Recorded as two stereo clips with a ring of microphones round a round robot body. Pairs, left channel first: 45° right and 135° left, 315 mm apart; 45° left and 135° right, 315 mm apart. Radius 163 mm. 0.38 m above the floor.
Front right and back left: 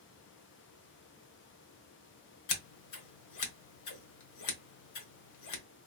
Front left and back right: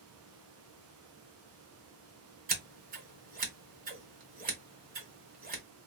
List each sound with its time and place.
2.5 s scissors: 70° right, 1.2 m